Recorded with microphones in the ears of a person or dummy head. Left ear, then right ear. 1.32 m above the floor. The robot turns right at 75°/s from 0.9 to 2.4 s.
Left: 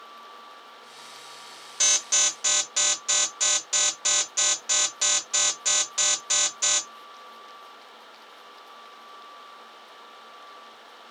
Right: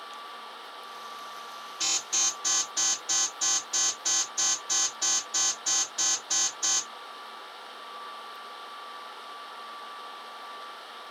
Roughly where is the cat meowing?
I don't hear a cat meowing.